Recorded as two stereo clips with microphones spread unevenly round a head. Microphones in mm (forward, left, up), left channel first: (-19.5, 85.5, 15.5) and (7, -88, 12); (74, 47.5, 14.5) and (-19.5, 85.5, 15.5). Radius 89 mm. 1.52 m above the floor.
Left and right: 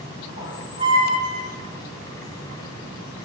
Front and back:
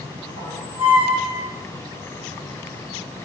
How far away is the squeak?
About 1.7 m.